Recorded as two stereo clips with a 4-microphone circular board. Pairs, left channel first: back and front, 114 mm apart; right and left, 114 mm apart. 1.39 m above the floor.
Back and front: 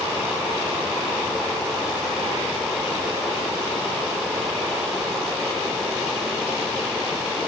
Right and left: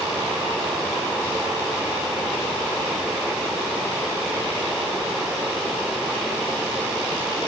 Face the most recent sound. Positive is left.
No sound to turn to.